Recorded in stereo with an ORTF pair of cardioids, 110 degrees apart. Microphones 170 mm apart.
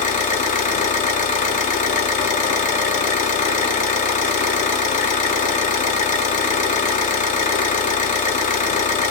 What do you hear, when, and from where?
0.0 s an engine running: 50° left, 0.8 m